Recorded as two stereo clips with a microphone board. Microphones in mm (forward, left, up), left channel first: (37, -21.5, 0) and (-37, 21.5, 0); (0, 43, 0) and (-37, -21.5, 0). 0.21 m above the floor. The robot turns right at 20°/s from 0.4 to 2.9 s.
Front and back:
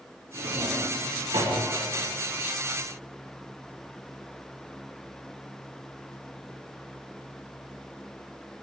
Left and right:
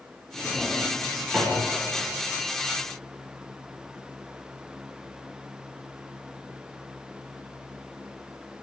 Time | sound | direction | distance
0.3 | a drawer | 140° left | 4 m